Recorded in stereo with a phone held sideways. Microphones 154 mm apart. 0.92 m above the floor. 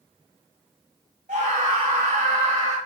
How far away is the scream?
About 3 m.